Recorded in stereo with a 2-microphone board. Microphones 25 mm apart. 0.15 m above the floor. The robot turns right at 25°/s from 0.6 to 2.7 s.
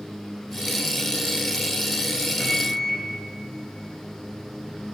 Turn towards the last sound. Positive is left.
turn(degrees=50)  # may be behind; listen again after turning